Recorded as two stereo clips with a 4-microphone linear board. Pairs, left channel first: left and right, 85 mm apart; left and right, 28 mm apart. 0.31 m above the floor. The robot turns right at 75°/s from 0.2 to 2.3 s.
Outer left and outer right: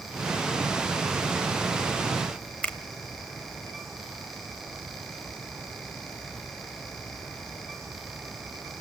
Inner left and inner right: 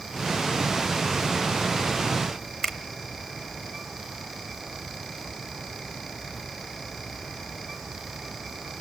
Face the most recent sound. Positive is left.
turn(degrees=20)  # may be behind; listen again after turning